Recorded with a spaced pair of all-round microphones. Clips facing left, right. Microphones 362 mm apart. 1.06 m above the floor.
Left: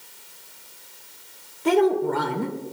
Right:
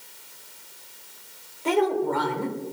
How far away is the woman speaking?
About 3 m.